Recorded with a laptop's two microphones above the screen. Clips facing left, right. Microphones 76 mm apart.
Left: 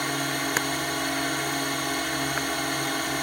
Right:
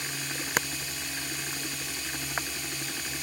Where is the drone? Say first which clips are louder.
Left 9 dB; 60° left (ahead or behind).